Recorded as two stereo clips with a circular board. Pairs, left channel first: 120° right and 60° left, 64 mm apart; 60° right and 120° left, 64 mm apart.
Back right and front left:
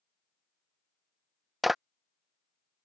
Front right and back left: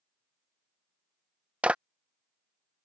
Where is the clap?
150° left.